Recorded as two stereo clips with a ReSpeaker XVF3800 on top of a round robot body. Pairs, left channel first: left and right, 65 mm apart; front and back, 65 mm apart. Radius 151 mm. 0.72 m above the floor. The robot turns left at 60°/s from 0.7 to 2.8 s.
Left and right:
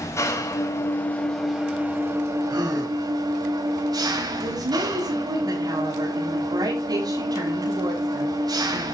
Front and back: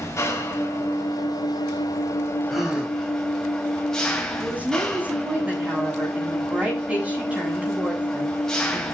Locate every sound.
0.0 s an engine running: 45° left, 4.5 m; by 8.9 s 80° right, 4.5 m
2.5 s a gasp: 90° right, 6 m; by 2.9 s 105° right, 6 m
4.4 s a woman speaking: 110° right, 9.5 m